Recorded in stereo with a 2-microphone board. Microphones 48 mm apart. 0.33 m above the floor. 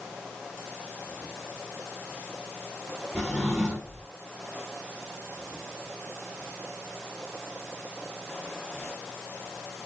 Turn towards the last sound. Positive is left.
turn(degrees=10)  # may be behind; listen again after turning